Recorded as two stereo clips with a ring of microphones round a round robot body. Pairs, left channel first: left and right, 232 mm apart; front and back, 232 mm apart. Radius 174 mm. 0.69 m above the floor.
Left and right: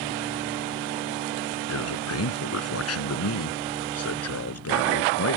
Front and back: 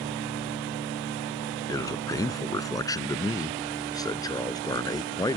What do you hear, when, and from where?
1.7 s a man speaking: 75° left